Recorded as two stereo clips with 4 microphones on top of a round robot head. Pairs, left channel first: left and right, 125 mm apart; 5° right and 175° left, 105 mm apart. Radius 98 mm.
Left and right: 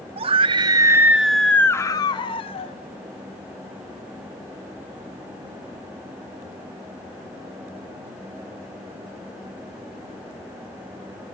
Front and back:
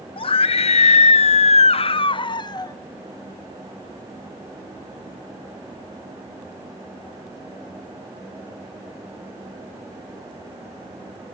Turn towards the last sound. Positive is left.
turn(degrees=45)